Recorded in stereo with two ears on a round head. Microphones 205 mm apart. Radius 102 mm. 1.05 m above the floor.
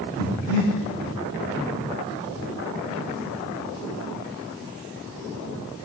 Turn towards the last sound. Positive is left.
turn(degrees=-40)  # may be behind; listen again after turning